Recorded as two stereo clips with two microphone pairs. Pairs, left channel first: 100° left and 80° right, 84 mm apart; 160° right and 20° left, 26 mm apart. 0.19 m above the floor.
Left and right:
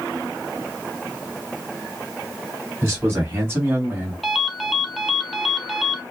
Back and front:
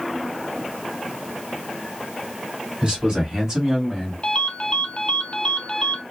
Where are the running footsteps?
No running footsteps in this recording.